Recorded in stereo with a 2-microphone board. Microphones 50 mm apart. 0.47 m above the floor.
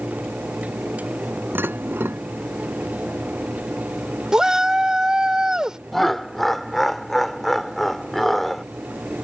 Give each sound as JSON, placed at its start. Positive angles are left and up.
{"t": 1.6, "sound": "dishes clattering", "side_deg": -45}
{"t": 4.3, "sound": "a shout", "side_deg": -15}
{"t": 5.9, "sound": "laughter", "side_deg": 5}